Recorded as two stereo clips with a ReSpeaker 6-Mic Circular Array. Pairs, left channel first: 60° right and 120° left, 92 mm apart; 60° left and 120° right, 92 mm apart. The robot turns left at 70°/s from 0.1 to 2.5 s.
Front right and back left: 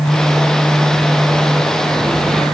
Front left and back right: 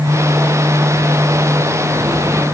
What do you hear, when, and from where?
Only background noise.